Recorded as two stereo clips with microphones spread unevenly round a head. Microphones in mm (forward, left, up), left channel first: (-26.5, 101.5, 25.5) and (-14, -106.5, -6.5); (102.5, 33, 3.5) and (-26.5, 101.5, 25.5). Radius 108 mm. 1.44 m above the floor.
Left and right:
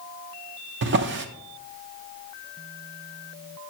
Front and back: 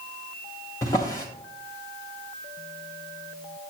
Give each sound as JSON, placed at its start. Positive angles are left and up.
{"t": 0.8, "sound": "a drawer", "azimuth_deg": -105, "distance_m": 0.6}